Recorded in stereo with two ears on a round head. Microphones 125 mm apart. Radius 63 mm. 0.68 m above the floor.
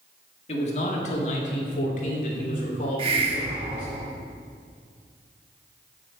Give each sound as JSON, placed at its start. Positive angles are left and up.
{"t": 0.5, "sound": "a man speaking", "side_deg": 50, "distance_m": 1.6}
{"t": 3.0, "sound": "a hiss", "side_deg": -40, "distance_m": 1.4}